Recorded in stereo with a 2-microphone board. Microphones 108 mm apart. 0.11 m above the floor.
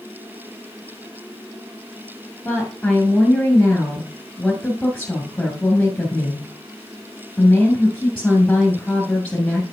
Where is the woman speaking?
10° left (ahead or behind), 2 m.